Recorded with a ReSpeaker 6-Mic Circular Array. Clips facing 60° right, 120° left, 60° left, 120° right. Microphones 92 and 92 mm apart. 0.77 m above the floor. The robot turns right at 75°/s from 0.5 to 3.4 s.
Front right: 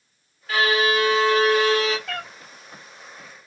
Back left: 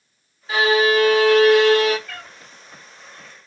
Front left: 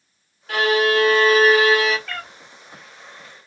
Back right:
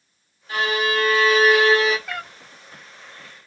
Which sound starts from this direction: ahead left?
A violin, at 0.5 s.